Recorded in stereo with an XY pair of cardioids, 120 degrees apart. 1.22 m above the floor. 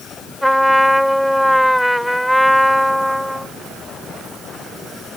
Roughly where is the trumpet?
Ahead.